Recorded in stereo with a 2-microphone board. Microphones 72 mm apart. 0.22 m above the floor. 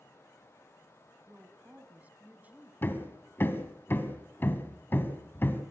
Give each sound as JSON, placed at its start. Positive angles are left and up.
{"t": 1.3, "sound": "a woman speaking", "side_deg": -20, "distance_m": 2.0}
{"t": 2.8, "sound": "hammering", "side_deg": 30, "distance_m": 1.6}